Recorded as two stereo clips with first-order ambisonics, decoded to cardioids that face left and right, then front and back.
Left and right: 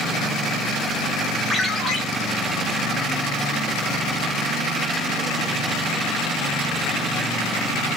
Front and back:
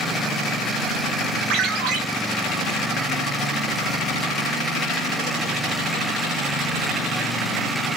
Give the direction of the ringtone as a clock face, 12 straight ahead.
6 o'clock.